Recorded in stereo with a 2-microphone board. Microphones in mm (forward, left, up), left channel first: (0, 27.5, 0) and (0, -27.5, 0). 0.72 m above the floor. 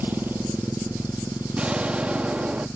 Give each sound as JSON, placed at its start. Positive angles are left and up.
{"t": 0.0, "sound": "a motorcycle", "side_deg": -35}
{"t": 1.6, "sound": "an explosion", "side_deg": -25}